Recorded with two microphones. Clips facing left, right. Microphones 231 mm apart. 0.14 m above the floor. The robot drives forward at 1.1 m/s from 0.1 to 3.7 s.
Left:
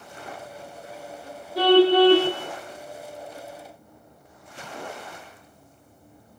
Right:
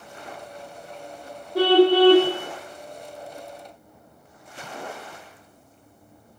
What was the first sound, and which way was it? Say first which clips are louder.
A car horn: even; 55° right (ahead or behind).